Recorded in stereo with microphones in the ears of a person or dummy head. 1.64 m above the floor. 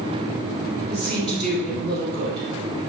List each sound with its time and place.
0.9 s a woman speaking: centre (ahead or behind), 2.0 m